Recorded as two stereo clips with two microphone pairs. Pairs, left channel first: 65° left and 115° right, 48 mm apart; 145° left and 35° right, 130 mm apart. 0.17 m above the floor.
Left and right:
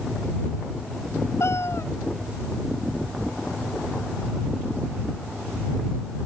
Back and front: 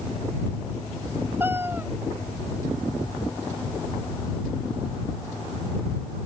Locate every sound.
1.4 s a cat meowing: 40° left